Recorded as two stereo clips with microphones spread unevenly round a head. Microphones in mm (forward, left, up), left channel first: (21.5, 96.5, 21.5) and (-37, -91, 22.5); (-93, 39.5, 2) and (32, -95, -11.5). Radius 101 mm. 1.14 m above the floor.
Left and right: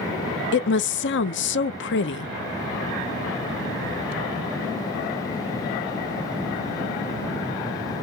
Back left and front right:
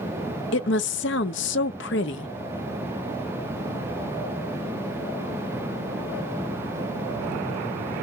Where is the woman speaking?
100° left, 0.8 m.